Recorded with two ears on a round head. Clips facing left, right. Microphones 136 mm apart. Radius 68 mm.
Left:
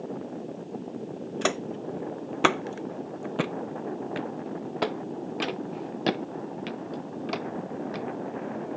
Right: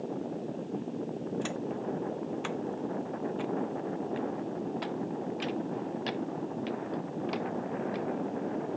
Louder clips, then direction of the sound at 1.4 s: Left 4 dB; 75° left (ahead or behind).